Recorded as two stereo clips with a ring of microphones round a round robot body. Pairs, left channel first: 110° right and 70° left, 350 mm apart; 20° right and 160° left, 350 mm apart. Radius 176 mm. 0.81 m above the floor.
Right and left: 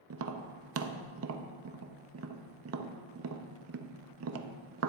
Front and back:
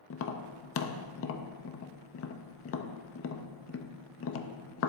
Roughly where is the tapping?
Ahead left.